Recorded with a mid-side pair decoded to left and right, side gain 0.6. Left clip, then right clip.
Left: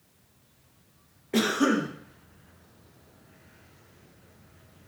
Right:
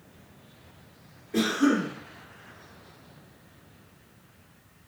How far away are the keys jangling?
I don't hear keys jangling.